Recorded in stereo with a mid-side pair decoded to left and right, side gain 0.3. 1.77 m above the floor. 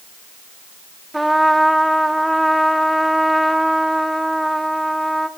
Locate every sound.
1.1 s a trumpet: 10° right, 0.6 m